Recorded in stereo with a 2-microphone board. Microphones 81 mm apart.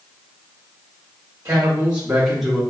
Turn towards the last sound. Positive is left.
turn(degrees=5)  # may be behind; listen again after turning